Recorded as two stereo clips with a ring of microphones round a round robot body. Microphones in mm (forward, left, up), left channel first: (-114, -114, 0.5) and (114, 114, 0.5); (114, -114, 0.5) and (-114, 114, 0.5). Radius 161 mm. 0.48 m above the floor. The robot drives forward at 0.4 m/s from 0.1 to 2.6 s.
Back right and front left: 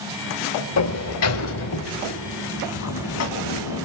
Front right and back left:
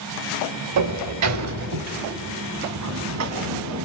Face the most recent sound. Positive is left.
turn(degrees=180)